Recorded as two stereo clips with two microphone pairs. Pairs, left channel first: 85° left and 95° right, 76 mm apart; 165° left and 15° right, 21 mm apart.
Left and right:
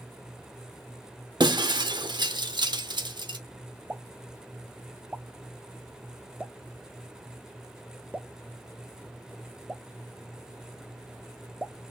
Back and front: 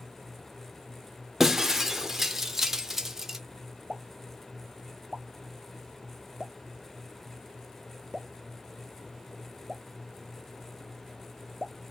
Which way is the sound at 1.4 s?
90° right.